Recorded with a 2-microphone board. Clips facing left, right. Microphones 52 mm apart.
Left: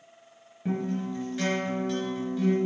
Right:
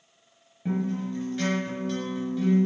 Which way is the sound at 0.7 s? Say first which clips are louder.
Right 1 dB; 5° right (ahead or behind).